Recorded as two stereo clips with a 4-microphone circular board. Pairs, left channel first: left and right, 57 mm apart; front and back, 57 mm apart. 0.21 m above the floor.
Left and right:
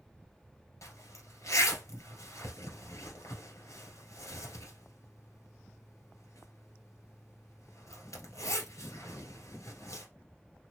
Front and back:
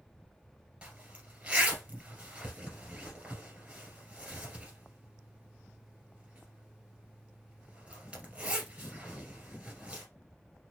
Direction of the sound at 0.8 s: 110° left.